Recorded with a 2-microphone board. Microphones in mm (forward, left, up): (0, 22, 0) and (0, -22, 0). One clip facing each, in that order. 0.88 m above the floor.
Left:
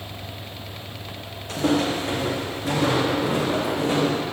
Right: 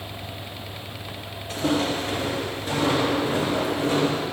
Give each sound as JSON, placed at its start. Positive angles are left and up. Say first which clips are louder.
{"t": 1.5, "sound": "footsteps", "louder": "left 2 dB", "side_deg": 70, "distance_m": 2.5}